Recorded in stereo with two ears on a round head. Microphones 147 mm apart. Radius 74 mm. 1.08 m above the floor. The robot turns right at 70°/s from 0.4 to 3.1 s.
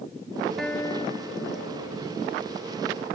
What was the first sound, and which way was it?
A guitar, straight ahead.